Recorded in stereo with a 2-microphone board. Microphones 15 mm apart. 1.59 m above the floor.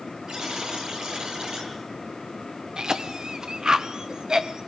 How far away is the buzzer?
About 6.5 m.